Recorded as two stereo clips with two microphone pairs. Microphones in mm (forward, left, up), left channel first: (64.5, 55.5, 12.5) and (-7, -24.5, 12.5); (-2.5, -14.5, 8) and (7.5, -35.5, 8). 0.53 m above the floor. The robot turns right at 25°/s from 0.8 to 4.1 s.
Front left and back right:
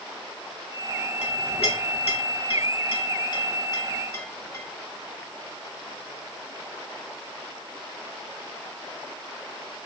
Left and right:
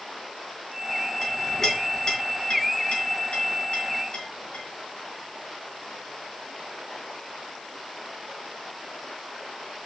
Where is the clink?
35° left, 3 m; by 4.6 s 110° left, 3 m.